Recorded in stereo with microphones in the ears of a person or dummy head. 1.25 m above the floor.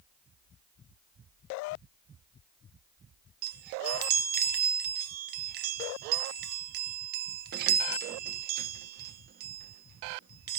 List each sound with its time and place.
3.4 s a chime: 55° right (ahead or behind), 1.1 m